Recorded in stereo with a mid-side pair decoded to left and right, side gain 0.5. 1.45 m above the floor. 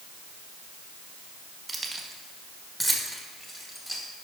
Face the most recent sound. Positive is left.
turn(degrees=15)